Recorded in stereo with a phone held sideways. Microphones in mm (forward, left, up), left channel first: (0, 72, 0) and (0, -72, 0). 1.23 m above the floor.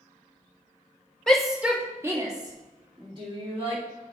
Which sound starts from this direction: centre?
A shout, at 1.3 s.